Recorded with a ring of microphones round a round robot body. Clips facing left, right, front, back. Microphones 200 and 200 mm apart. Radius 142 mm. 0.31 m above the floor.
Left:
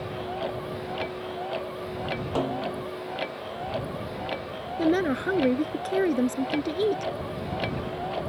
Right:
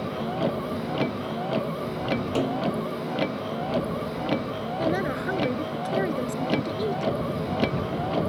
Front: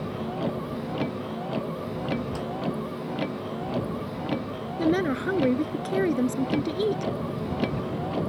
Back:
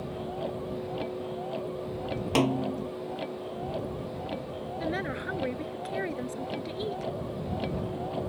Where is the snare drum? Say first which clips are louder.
Right 1 dB, back 4 dB; 165° right.